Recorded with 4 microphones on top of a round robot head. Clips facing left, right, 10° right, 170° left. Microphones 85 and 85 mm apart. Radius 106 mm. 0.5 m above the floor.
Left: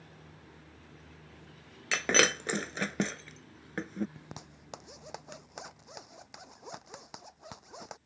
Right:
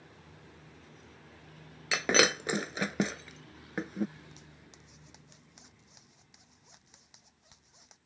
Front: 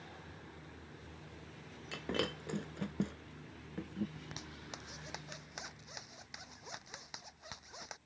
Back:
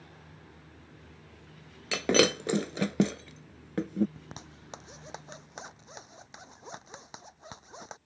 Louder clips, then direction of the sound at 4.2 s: Left 5 dB, back 2 dB; 115° left.